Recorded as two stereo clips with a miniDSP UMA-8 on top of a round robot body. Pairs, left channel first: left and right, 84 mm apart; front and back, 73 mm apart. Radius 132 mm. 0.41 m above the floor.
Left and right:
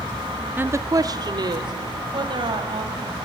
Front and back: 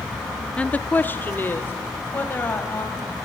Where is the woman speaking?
55° right, 0.8 m; by 3.2 s 60° right, 3.5 m.